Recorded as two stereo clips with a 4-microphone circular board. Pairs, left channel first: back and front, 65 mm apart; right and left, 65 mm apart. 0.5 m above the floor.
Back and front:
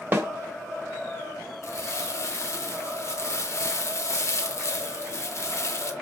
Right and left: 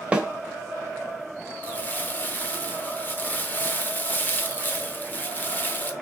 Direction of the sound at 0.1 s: 30° left.